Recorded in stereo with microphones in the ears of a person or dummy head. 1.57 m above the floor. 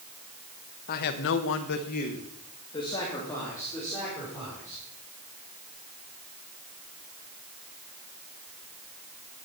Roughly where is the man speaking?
Left.